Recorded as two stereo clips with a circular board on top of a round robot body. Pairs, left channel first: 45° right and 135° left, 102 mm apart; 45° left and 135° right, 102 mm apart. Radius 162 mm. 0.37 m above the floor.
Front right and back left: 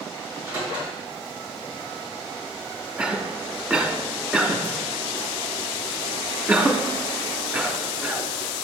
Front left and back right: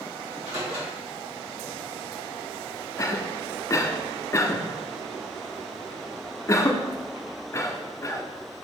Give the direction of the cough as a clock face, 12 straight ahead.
10 o'clock.